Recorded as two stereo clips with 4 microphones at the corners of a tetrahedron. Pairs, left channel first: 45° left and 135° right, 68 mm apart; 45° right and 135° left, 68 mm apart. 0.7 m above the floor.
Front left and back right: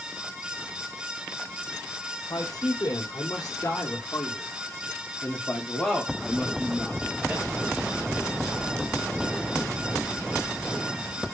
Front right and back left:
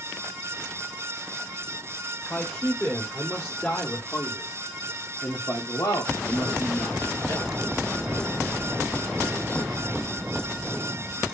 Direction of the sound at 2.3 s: 25° left.